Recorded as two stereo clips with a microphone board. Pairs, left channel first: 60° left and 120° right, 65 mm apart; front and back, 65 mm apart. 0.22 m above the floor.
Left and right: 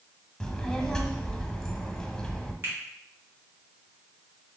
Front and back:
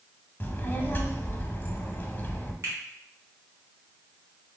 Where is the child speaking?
10° right, 0.7 m.